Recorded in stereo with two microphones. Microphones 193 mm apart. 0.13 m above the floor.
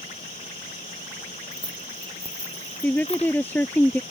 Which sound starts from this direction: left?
Keys jangling, at 1.5 s.